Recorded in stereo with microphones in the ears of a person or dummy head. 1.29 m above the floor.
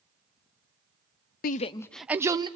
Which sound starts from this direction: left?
A shout, at 1.4 s.